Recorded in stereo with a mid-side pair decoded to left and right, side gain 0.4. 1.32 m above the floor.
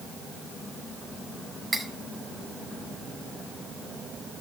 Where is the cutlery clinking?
10° right, 6.5 m.